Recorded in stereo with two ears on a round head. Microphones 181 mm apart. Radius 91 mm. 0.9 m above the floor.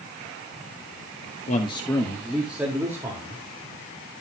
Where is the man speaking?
35° left (ahead or behind), 1.3 m; by 3.4 s 15° right (ahead or behind), 3 m.